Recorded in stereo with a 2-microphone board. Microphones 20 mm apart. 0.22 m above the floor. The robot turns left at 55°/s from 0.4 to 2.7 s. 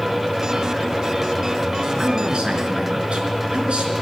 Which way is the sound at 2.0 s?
40° right.